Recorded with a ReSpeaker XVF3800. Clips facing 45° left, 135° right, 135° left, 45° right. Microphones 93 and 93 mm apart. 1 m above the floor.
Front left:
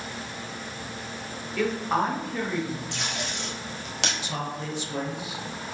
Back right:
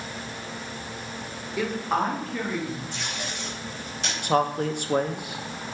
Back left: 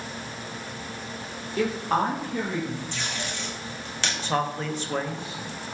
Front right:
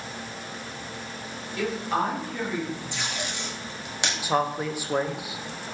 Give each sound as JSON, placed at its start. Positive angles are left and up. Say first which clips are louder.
{"t": 1.6, "sound": "a woman speaking", "louder": "front left 1 dB, back left 2 dB", "azimuth_deg": 155, "distance_m": 1.1}
{"t": 2.9, "sound": "tape being pulled", "louder": "front left 1 dB, even", "azimuth_deg": 30, "distance_m": 0.8}
{"t": 4.2, "sound": "a man speaking", "louder": "back right 9 dB, front right 2 dB", "azimuth_deg": -120, "distance_m": 0.5}